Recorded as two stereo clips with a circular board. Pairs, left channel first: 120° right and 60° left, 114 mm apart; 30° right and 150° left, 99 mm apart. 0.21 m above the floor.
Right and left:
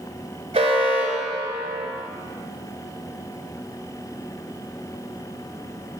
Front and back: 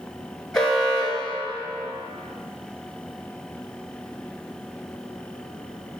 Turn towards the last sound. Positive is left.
turn(degrees=55)